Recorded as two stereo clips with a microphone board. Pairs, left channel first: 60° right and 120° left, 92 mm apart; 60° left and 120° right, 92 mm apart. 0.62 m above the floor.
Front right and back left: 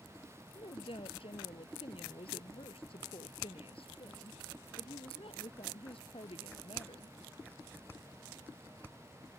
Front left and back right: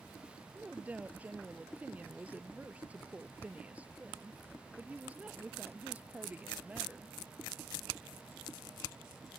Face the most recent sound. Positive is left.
turn(degrees=-45)